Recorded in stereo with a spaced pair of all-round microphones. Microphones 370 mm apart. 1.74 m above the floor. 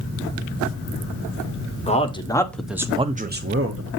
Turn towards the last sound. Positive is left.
turn(degrees=-40)  # may be behind; listen again after turning